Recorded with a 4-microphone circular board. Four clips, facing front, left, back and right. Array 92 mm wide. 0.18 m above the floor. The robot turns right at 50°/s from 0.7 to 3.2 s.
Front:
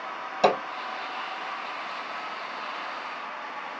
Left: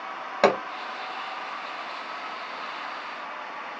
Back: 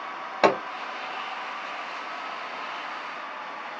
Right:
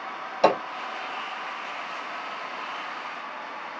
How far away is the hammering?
About 1.5 m.